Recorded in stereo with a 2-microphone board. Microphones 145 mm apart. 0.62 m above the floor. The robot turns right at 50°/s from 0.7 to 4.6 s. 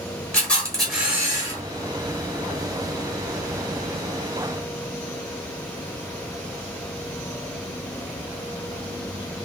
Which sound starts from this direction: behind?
A camera shutter, at 0.3 s.